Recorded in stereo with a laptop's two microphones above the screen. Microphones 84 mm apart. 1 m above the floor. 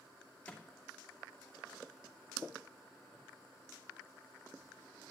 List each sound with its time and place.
0.5 s a microwave: 15° left (ahead or behind), 2.5 m